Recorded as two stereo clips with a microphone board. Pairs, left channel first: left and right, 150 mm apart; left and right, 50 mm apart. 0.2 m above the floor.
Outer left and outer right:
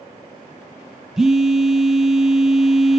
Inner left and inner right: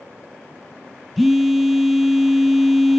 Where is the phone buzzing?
5° right (ahead or behind), 0.6 m.